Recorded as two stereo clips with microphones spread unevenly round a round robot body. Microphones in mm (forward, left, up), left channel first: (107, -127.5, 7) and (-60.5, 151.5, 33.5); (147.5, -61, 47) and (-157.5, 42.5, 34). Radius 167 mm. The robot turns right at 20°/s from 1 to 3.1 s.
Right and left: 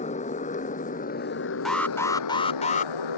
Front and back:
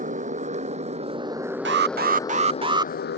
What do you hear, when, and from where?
0.0 s a motorcycle: 130° right; by 3.2 s 80° right
1.6 s an alarm: 145° right; by 2.9 s 120° right